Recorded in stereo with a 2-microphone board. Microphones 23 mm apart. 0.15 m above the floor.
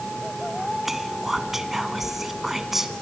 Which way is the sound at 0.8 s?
15° right (ahead or behind).